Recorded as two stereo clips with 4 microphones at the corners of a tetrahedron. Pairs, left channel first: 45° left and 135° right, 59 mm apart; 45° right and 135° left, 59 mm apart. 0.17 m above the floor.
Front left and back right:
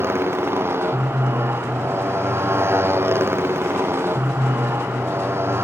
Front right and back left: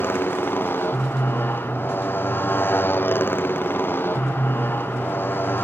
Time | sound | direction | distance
0.0 | a motorcycle | 95° right | ?